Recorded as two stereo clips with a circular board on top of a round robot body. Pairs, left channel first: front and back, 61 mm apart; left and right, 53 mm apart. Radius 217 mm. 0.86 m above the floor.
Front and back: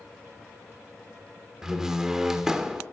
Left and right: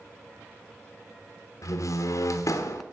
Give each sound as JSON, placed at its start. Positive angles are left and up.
{"t": 1.6, "sound": "a door slam", "azimuth_deg": 100, "distance_m": 1.0}